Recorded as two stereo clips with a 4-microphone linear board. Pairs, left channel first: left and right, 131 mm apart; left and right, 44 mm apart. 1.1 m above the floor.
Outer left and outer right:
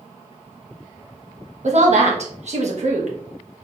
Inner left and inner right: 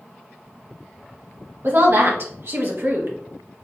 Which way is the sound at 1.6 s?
60° right (ahead or behind).